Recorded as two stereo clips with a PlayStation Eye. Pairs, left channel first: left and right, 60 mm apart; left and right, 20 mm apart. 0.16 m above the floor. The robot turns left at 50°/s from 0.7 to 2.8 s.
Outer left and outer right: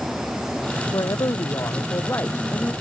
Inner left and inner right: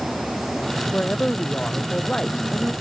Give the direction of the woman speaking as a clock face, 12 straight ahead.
8 o'clock.